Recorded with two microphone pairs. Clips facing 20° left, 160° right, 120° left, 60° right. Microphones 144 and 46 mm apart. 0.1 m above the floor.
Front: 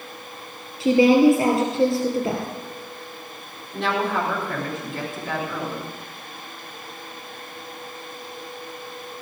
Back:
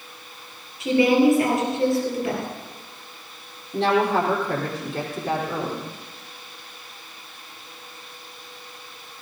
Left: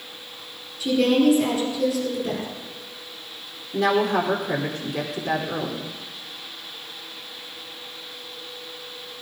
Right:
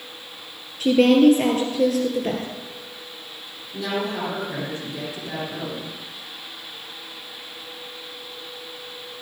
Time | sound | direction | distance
0.8 | a woman speaking | 35° right | 2.5 m
3.7 | a woman speaking | 145° left | 4 m